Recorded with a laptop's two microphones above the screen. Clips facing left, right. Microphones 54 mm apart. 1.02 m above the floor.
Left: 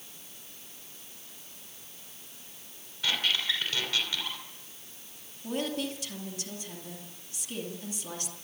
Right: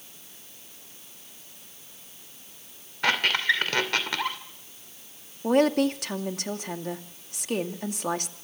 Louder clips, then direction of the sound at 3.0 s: Right 7 dB; 60° right (ahead or behind).